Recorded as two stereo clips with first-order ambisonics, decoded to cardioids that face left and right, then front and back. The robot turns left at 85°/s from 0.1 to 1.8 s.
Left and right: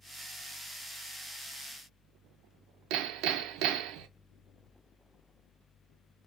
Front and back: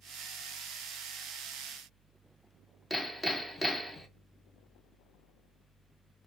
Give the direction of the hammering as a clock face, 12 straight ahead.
3 o'clock.